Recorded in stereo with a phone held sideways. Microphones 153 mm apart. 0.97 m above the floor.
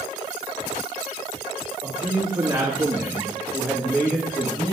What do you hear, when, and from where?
1.8 s a man speaking: 25° right (ahead or behind), 2.5 m; by 4.7 s 35° left (ahead or behind), 1.4 m